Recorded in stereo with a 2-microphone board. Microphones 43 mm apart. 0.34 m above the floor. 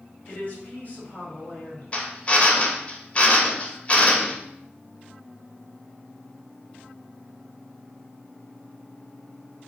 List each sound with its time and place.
0.3 s a woman speaking: 45° left (ahead or behind), 2 m
1.9 s a drill: 30° left (ahead or behind), 0.7 m